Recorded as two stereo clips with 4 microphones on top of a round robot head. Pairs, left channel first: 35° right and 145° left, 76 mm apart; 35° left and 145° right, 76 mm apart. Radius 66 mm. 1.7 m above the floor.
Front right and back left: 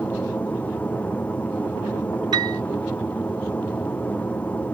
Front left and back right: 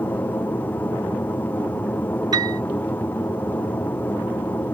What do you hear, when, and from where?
0.0 s an aircraft: 5° left
2.3 s a piano: 175° left